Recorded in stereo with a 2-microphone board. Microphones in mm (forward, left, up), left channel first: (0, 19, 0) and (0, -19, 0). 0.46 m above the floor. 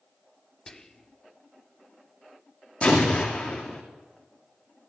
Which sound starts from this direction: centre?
Whispering, at 0.7 s.